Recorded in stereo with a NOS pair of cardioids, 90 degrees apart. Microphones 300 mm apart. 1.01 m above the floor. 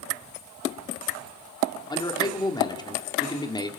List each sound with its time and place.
1.9 s a man speaking: 15° left, 3 m